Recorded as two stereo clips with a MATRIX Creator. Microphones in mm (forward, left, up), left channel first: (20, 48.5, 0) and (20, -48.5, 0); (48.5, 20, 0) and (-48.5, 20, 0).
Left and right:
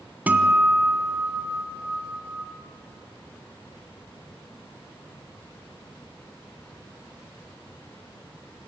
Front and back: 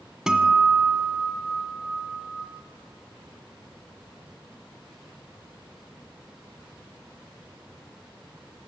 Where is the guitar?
110° right, 1.2 m.